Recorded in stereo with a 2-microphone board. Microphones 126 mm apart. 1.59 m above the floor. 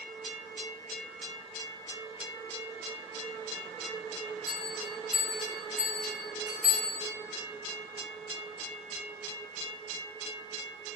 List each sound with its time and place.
4.5 s a bell: 10° right (ahead or behind), 1.6 m